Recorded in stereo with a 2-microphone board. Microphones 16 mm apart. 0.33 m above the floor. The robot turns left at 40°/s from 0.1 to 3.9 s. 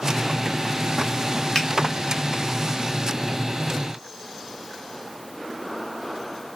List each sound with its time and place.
1.6 s a finger snap: 35° left (ahead or behind), 0.8 m